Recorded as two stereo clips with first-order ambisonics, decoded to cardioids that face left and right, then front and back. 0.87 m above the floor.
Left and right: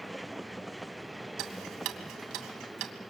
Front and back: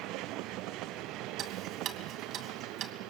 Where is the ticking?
125° right, 2.5 m.